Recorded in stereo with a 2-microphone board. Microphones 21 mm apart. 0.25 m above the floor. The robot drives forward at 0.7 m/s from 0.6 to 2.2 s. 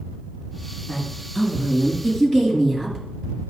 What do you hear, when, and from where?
0.9 s a woman speaking: 10° left (ahead or behind), 3.5 m